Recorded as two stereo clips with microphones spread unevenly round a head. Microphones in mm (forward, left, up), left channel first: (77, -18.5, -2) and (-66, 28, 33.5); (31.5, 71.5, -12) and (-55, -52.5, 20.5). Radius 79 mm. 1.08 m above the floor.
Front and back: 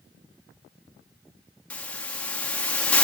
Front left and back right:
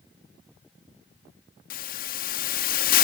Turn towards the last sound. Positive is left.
turn(degrees=60)